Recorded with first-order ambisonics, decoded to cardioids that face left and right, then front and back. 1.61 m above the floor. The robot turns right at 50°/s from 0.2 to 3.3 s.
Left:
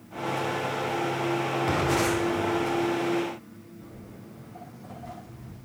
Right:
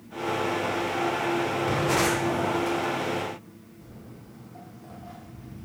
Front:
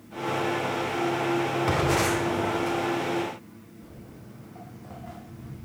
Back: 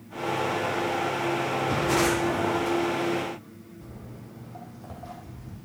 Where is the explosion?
25° left, 2.5 m; by 2.7 s 75° left, 2.5 m.